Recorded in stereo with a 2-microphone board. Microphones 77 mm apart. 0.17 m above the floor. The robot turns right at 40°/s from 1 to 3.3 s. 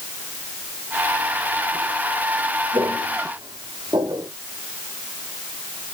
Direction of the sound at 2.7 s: 80° right.